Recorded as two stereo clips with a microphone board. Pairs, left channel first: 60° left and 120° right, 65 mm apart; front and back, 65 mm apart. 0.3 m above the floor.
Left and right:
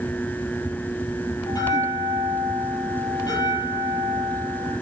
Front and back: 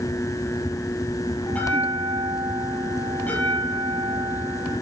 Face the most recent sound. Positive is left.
turn(degrees=65)